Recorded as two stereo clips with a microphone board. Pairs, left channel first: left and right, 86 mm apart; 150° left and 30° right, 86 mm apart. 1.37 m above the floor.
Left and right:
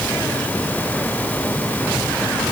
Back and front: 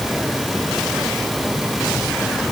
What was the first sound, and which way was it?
Only background noise.